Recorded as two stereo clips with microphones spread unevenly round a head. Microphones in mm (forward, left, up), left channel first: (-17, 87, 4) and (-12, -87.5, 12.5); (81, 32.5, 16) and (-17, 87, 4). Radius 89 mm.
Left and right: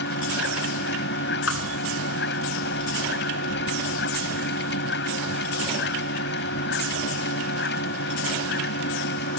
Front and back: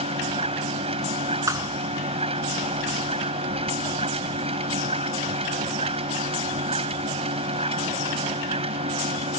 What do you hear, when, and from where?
0.0 s a machine running: 120° left
1.5 s a thud: 90° left